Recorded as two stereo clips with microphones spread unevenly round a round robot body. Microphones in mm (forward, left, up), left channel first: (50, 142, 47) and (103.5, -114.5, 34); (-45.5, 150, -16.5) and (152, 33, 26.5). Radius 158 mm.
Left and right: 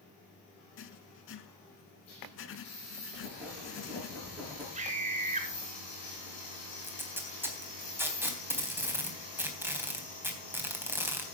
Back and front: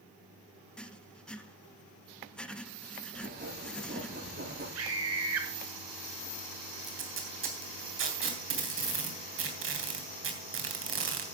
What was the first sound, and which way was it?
Writing, 60° left.